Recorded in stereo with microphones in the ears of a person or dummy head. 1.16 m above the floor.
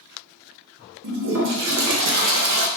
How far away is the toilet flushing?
About 0.8 m.